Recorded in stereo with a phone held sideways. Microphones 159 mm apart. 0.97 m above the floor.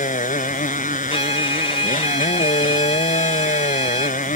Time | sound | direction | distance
0.0 | a motorcycle | 60° left (ahead or behind) | ?
1.1 | a violin | 40° left (ahead or behind) | ?